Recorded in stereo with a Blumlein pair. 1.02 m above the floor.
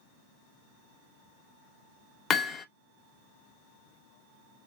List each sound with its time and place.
2.3 s hammering: 25° left, 0.7 m